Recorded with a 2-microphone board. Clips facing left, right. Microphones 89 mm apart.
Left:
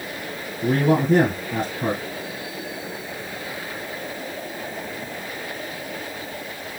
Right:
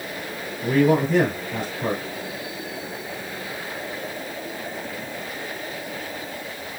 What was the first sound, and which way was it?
A man speaking, 50° left (ahead or behind).